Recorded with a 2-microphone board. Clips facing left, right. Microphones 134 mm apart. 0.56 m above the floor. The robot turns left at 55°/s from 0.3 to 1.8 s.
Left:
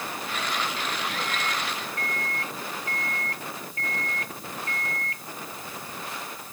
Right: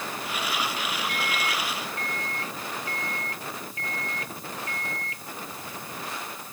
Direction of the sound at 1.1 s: 170° left.